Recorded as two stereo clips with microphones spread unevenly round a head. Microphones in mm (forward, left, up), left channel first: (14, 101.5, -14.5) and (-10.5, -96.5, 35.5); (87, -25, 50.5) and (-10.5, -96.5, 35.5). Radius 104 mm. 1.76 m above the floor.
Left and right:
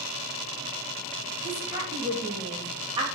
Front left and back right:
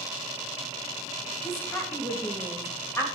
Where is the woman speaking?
30° right, 3 m.